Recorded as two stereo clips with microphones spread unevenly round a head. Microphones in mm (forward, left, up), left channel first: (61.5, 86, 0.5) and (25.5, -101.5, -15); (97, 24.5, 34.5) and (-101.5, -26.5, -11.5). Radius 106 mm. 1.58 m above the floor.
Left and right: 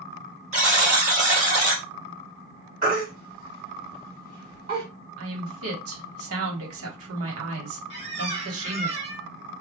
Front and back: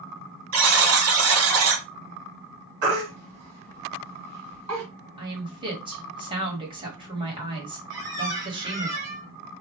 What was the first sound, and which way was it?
A buzzer, 165° right.